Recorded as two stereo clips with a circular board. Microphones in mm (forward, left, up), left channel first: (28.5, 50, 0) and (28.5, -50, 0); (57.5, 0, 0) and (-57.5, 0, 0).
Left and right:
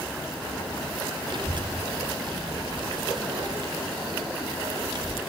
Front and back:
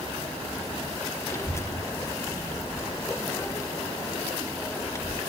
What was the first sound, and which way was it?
A child speaking, 60° right.